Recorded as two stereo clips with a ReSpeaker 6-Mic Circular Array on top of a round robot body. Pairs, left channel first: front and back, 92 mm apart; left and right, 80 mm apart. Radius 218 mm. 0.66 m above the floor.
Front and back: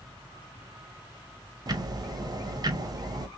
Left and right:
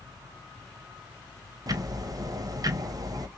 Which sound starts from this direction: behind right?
Ticking, at 1.7 s.